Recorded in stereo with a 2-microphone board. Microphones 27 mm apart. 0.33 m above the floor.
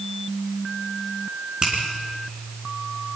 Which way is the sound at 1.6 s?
30° right (ahead or behind).